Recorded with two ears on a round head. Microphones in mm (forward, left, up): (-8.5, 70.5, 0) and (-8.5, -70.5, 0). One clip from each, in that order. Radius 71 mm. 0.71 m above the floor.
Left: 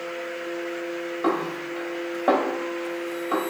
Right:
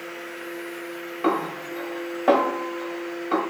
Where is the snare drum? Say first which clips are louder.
Right 2 dB; 10° right (ahead or behind), 2.0 m.